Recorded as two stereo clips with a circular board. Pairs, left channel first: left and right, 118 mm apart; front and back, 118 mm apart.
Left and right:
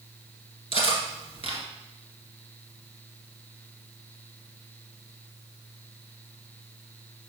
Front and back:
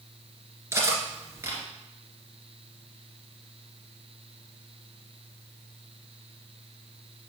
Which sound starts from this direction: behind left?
Cutlery clinking, at 0.7 s.